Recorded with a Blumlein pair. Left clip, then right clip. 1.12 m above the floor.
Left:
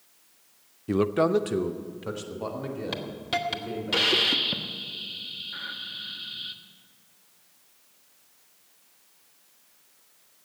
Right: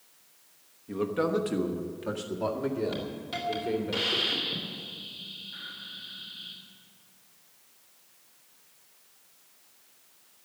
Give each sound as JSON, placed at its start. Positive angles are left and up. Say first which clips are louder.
{"t": 0.9, "sound": "a man speaking", "louder": "left 5 dB", "azimuth_deg": 35, "distance_m": 0.5}
{"t": 2.9, "sound": "a hiss", "louder": "left 5 dB", "azimuth_deg": 65, "distance_m": 1.3}